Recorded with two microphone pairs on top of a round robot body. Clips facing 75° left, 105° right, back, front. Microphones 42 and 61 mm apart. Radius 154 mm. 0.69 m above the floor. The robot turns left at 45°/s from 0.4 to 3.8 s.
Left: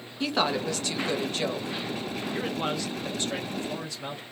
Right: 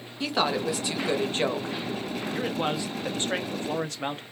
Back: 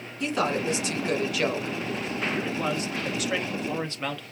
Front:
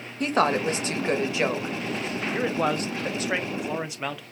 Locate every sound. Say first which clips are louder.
0.2 s a woman speaking: even, front 4 dB; 10° right, 0.8 m; by 1.8 s 70° right, 0.8 m
2.3 s a man speaking: right 2 dB, front 7 dB; 10° right, 0.7 m; by 4.2 s 80° right, 0.7 m